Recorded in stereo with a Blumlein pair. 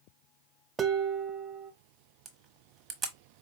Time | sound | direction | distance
0.8 | dishes clattering | 15° right | 0.5 m
2.2 | a camera shutter | 20° right | 1.0 m